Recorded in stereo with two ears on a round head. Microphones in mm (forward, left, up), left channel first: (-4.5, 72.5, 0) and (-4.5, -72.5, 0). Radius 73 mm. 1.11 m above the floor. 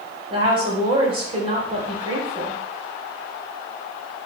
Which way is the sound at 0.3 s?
35° right (ahead or behind).